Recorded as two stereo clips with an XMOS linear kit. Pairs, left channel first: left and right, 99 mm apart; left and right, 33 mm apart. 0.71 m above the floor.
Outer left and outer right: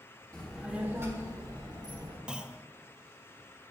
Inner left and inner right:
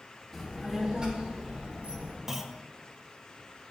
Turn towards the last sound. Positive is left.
turn(degrees=-10)  # may be behind; listen again after turning